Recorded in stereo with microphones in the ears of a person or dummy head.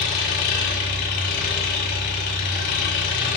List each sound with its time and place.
0.0 s an engine running: 50° left (ahead or behind), 1.8 m